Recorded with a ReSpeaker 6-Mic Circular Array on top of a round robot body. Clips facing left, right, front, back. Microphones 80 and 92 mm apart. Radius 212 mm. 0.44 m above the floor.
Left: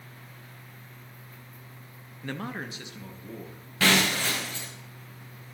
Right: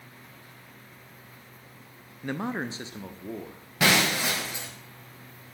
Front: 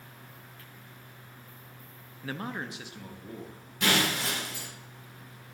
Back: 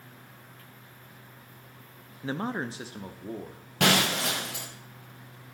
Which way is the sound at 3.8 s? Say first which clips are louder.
Even, back 3 dB; 165° right.